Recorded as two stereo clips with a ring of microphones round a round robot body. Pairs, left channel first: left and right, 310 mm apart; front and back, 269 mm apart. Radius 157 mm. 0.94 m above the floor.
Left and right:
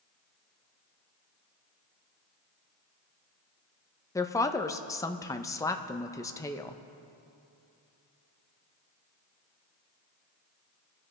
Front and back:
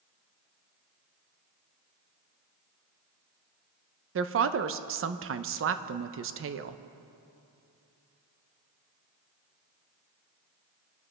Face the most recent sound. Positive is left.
turn(degrees=165)